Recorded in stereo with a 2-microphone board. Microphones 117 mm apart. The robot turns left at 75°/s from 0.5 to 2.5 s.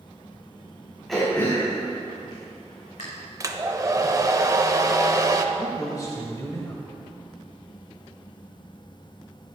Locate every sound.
1.1 s throat clearing: centre (ahead or behind), 4.5 m; by 3.0 s 75° left (ahead or behind), 4.5 m
3.4 s a hair dryer: 30° right (ahead or behind), 0.8 m
5.5 s a man speaking: 30° left (ahead or behind), 1.4 m